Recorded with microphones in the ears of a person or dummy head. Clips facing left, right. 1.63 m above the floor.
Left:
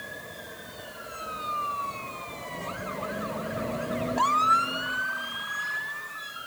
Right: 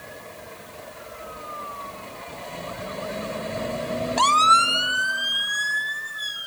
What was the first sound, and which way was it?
Only background noise.